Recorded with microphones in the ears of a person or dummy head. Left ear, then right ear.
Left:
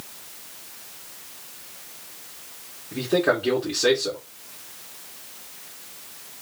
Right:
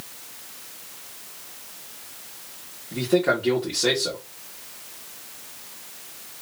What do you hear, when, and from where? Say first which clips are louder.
2.9 s a man speaking: even; 5° left (ahead or behind), 1.7 m